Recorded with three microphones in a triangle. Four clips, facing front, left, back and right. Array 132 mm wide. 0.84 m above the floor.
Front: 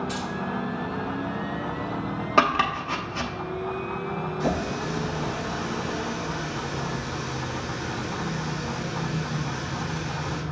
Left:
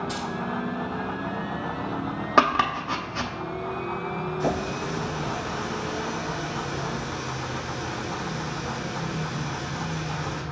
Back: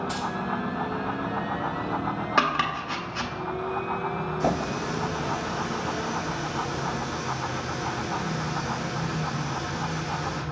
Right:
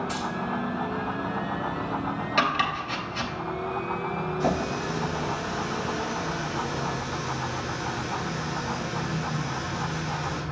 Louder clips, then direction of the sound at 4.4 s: Right 1 dB, back 1 dB; straight behind.